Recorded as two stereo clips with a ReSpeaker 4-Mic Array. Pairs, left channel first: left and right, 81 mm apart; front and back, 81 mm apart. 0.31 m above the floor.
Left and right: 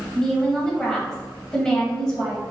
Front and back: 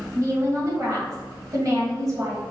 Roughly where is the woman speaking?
Behind.